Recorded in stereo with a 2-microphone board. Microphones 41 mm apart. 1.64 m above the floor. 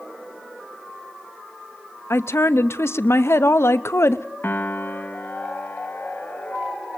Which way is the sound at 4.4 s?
45° left (ahead or behind).